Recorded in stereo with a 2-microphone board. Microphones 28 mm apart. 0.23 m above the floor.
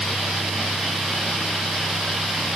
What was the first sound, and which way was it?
Only background noise.